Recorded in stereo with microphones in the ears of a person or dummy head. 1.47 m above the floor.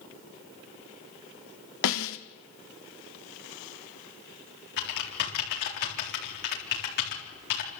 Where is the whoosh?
No whoosh in this recording.